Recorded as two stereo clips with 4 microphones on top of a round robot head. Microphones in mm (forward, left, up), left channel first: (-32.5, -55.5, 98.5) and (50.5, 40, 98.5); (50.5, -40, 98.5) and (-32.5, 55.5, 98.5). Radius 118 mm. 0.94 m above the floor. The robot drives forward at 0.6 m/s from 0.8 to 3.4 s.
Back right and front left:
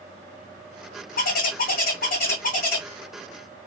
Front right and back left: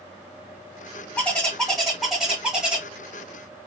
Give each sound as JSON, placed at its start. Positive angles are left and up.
{"t": 1.2, "sound": "a bird", "azimuth_deg": -130, "distance_m": 1.9}